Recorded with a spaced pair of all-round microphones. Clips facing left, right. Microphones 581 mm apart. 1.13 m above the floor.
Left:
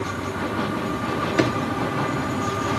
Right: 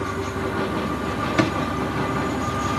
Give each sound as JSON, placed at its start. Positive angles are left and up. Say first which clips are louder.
{"t": 1.4, "sound": "a drawer", "louder": "even", "side_deg": -30, "distance_m": 1.5}